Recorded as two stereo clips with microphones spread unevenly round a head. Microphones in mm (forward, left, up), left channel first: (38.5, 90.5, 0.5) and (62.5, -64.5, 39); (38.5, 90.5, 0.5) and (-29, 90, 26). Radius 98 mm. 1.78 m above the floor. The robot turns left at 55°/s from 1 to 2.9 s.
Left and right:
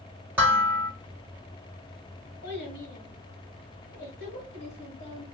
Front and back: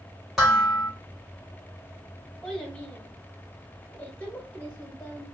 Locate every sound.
0.4 s dishes clattering: 130° right, 1.0 m
2.4 s a child speaking: 105° left, 1.8 m; by 5.2 s 80° left, 1.8 m